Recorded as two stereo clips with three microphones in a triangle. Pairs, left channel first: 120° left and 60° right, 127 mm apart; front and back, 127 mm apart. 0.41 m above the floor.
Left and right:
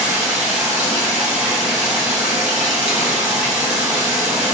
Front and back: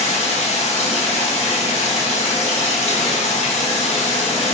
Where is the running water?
15° left, 2.5 m.